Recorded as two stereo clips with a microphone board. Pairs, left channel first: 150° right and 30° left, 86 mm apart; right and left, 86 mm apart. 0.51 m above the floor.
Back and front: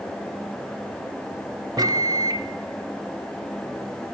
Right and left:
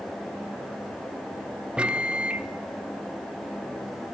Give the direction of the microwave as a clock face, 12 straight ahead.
11 o'clock.